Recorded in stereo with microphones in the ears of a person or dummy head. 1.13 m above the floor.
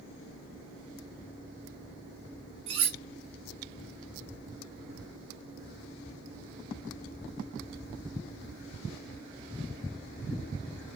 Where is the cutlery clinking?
35° right (ahead or behind), 0.8 m.